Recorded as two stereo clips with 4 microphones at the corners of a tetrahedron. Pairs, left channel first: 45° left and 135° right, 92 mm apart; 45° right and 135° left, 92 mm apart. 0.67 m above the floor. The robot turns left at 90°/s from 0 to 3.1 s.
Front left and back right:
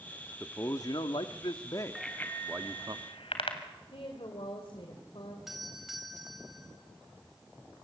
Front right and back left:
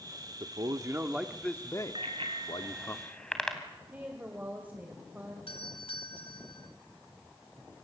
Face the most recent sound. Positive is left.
turn(degrees=-50)